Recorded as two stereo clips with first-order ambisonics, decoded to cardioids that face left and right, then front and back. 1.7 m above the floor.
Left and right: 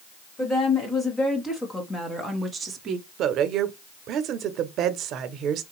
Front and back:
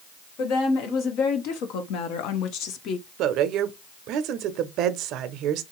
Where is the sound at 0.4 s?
25° left, 1.9 m; by 3.1 s 50° right, 0.6 m.